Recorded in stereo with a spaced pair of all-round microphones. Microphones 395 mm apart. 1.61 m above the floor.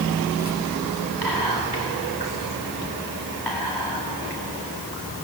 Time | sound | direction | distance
1.2 | whispering | 80° left | 5 m